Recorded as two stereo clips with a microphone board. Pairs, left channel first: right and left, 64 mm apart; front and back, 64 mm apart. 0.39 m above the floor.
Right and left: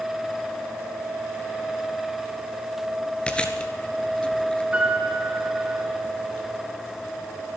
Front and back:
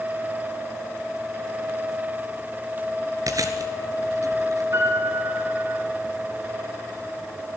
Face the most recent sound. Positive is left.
turn(degrees=155)